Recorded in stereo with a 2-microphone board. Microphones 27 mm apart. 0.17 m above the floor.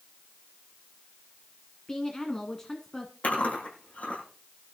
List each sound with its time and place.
1.9 s a woman speaking: 20° left (ahead or behind), 1.6 m
3.2 s chewing: 70° left (ahead or behind), 7.5 m